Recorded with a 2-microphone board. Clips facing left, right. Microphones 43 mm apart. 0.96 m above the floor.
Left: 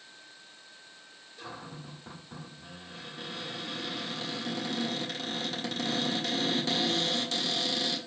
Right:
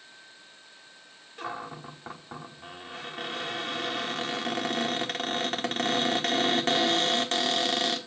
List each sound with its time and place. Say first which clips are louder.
1.4 s a cupboard door: right 7 dB; 40° right (ahead or behind), 1.2 m